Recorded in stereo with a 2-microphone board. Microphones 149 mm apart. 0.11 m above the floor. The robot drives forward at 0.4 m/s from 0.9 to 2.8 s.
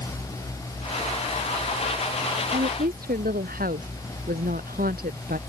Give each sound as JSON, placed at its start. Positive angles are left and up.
{"t": 2.5, "sound": "a woman speaking", "side_deg": -85}